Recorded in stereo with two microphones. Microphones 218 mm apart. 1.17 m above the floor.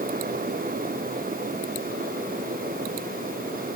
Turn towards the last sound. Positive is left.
No sound to turn to.